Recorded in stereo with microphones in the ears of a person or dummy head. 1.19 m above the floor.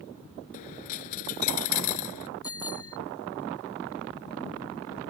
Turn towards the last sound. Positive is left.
turn(degrees=20)  # may be behind; listen again after turning